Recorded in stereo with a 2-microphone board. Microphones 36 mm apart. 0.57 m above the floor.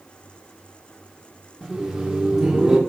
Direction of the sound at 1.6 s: 10° right (ahead or behind).